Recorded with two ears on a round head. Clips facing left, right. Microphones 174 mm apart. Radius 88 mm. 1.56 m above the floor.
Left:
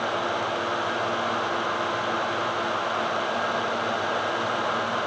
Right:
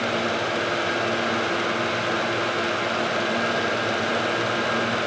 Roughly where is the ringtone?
No ringtone in this recording.